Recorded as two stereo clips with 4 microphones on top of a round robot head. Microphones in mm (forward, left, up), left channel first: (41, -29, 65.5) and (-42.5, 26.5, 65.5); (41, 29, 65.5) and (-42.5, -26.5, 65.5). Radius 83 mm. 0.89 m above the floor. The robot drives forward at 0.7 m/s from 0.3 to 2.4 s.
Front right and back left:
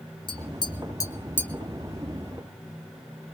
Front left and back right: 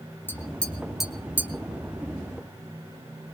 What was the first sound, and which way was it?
Tapping, 35° right.